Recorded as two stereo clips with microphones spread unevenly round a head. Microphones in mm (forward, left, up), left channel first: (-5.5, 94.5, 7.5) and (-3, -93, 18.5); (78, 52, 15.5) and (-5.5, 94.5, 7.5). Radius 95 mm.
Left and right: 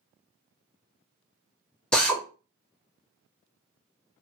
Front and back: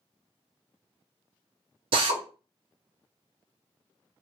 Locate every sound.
1.9 s a drill: straight behind, 0.5 m